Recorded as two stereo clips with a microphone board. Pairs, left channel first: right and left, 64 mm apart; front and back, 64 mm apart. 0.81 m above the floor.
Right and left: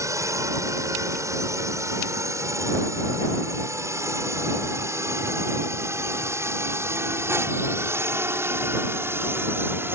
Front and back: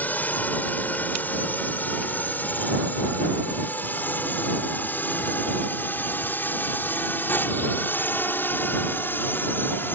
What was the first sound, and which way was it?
A drone, 60° left.